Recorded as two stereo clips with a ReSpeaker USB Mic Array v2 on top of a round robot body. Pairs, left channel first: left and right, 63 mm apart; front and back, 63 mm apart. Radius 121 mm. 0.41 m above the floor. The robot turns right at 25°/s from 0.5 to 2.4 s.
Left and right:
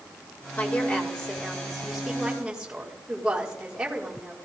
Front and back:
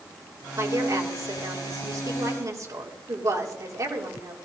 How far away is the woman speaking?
About 3 m.